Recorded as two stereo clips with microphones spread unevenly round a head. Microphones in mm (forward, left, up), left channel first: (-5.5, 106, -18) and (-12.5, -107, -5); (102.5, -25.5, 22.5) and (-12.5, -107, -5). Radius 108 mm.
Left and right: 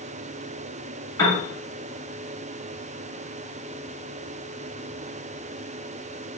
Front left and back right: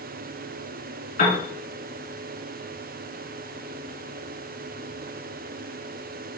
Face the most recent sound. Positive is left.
turn(degrees=20)